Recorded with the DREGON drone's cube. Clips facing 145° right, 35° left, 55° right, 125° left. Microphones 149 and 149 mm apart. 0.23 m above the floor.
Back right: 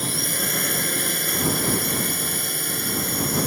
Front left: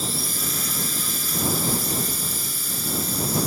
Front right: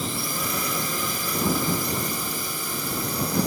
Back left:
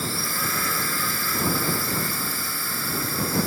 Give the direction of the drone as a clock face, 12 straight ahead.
4 o'clock.